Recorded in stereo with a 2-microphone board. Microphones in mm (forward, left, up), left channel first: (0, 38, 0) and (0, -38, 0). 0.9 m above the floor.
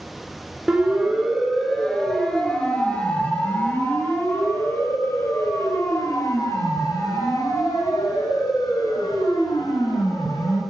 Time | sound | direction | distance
0.7 | a siren | 10° right (ahead or behind) | 3.5 m